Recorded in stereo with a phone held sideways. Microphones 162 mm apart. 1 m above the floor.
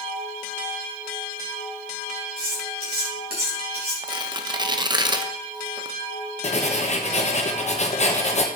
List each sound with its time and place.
2.4 s cutlery clinking: 90° right, 4.5 m
4.0 s tearing paper: 30° right (ahead or behind), 0.6 m
6.4 s writing: 45° left (ahead or behind), 0.9 m